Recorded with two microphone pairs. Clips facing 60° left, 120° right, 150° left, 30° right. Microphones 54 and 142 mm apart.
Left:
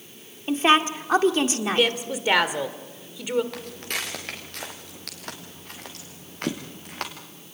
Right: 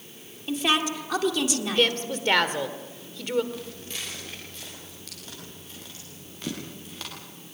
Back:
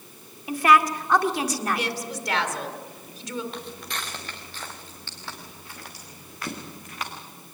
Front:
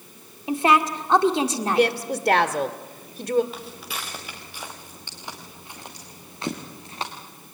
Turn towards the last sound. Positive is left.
turn(degrees=30)